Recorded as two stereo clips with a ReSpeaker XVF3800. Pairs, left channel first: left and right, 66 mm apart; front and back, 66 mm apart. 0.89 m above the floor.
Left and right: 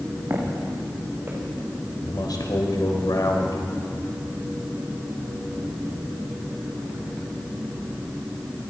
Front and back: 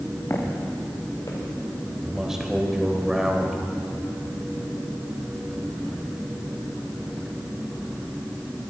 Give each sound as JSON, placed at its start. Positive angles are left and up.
{"t": 0.3, "sound": "footsteps", "azimuth_deg": -45, "distance_m": 4.5}
{"t": 2.0, "sound": "a man speaking", "azimuth_deg": 95, "distance_m": 3.5}